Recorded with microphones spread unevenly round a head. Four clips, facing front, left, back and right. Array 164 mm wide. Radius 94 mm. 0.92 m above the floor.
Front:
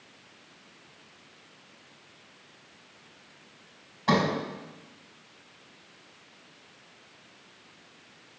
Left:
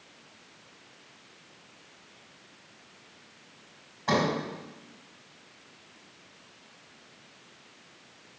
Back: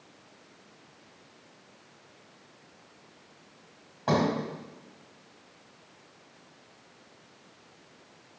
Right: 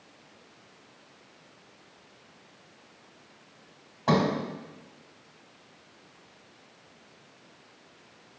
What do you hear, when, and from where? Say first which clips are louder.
4.1 s a sliding door: right 2 dB, front 1 dB; 140° right, 2 m